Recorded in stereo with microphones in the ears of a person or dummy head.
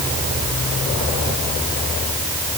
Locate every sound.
Only background noise.